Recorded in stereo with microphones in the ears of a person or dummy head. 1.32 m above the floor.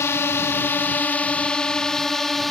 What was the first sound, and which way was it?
A drone, 15° left (ahead or behind).